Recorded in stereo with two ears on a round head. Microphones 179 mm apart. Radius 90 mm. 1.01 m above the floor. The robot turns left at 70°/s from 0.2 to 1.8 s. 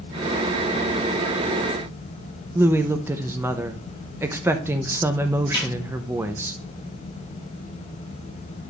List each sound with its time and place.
2.5 s a woman speaking: 10° right (ahead or behind), 0.6 m
5.5 s a snare drum: 25° left (ahead or behind), 6.5 m